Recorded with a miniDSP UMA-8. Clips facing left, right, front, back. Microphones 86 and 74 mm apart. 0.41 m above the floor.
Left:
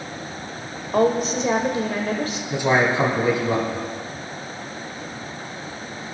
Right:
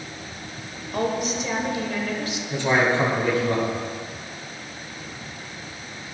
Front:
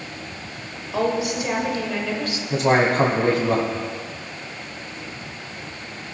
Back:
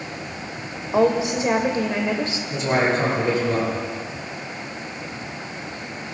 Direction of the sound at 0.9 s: 125° left.